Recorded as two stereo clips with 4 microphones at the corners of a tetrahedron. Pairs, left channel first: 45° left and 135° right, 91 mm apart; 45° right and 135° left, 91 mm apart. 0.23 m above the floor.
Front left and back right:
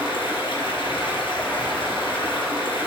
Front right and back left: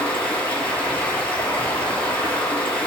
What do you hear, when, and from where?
0.0 s running water: 30° left, 3 m